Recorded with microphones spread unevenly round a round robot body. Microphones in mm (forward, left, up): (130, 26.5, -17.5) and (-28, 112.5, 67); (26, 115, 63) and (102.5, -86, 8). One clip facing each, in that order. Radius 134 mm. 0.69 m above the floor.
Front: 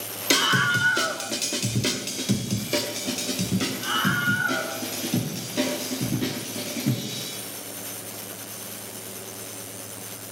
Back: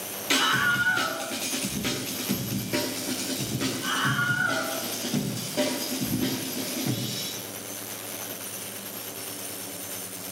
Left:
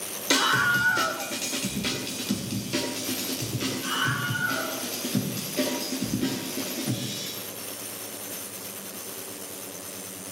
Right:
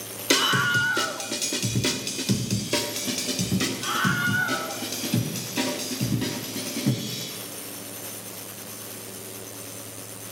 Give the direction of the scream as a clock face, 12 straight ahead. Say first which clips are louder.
Front 3 dB, right 2 dB; 1 o'clock.